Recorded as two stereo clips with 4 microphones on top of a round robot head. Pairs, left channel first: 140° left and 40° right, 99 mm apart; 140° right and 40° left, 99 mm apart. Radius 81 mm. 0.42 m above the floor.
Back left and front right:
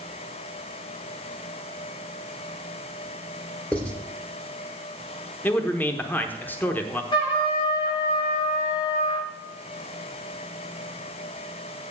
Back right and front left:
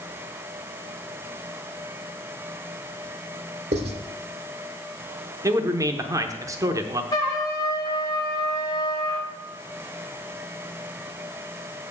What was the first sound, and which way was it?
Writing, 60° left.